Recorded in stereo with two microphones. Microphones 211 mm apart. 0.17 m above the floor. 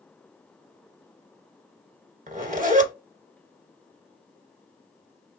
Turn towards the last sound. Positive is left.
turn(degrees=-40)  # may be behind; listen again after turning